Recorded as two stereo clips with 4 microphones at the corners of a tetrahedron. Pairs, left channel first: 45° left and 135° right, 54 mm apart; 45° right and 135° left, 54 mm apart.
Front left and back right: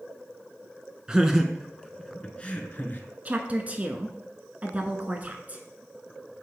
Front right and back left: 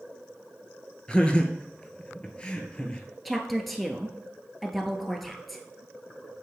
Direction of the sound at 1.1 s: 85° right.